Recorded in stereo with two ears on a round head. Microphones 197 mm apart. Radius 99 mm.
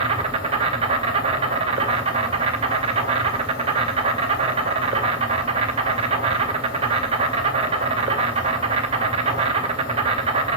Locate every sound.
0.0 s an insect: 25° right (ahead or behind), 2 m